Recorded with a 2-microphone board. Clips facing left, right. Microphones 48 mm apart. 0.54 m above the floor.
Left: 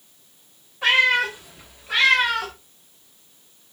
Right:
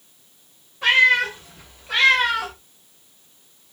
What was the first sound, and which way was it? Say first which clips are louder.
A cat meowing: right 2 dB; 15° left (ahead or behind).